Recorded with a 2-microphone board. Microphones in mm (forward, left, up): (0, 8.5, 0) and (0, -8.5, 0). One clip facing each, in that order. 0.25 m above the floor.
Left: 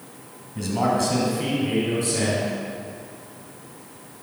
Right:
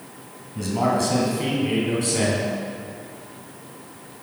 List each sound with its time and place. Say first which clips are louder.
0.6 s a man speaking: even; centre (ahead or behind), 1.9 m; by 2.5 s 25° right (ahead or behind), 2 m